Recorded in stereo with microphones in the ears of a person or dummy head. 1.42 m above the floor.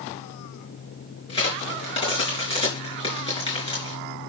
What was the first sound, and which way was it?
A crack, 30° left (ahead or behind).